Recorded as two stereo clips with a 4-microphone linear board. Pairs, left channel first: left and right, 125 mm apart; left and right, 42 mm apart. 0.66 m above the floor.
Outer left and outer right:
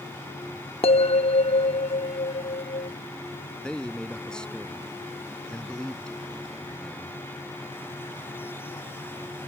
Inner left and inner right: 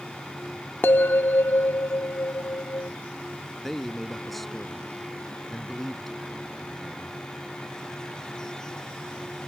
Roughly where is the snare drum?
No snare drum in this recording.